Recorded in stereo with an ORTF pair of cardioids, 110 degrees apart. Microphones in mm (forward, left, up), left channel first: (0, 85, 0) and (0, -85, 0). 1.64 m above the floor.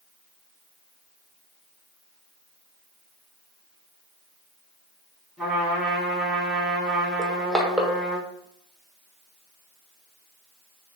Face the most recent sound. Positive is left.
turn(degrees=0)